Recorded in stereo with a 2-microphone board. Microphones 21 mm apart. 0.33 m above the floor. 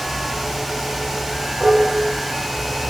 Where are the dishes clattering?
10° left (ahead or behind), 2 m.